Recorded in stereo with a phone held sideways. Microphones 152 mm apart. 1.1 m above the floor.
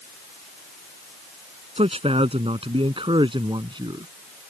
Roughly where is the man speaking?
Right.